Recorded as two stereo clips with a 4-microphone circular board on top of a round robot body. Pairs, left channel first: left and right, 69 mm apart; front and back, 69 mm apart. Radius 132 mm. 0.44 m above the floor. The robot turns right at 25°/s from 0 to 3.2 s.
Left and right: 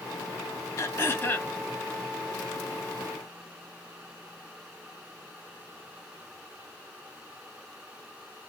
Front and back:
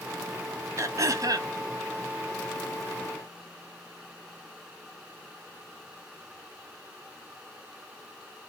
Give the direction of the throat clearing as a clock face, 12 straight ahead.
7 o'clock.